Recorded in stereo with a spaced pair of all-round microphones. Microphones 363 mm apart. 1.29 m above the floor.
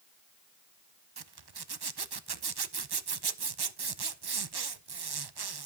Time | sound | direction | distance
1.2 | a zipper | 85° right | 0.6 m